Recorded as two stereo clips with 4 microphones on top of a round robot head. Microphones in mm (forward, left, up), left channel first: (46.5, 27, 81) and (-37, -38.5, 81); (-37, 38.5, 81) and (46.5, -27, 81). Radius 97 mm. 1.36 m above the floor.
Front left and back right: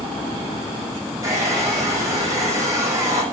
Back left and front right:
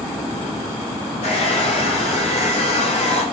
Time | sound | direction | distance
1.2 | a hair dryer | 155° left | 8 m